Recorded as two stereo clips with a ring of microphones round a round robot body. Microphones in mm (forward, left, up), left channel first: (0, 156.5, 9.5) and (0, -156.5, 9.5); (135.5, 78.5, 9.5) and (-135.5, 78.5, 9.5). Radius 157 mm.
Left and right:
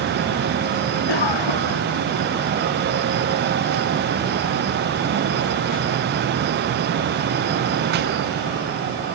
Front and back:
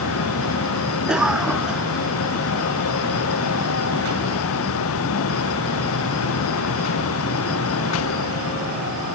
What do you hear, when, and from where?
1.1 s a cough: 95° left